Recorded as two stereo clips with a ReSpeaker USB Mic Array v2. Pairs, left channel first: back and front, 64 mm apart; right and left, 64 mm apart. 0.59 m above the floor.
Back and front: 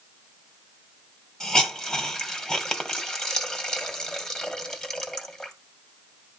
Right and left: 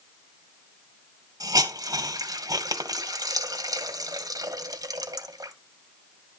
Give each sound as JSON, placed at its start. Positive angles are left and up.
{"t": 1.4, "sound": "a hiss", "azimuth_deg": 95, "distance_m": 2.0}